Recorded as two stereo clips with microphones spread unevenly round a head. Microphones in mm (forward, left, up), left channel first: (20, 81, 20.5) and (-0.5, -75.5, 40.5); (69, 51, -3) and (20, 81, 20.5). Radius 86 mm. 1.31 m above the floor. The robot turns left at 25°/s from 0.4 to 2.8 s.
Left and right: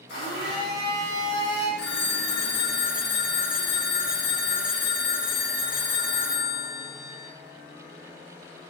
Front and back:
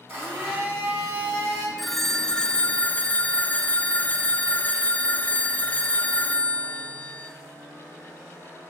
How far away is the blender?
About 3 m.